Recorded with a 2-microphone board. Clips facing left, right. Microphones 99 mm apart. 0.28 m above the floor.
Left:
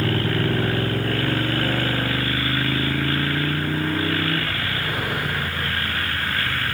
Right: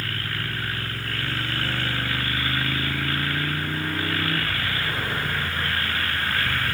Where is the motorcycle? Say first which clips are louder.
Left 10 dB; 75° left (ahead or behind); by 6.7 s 10° left (ahead or behind).